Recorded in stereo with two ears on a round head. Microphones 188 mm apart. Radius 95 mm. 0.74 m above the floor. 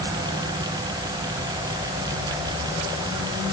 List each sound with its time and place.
Only background noise.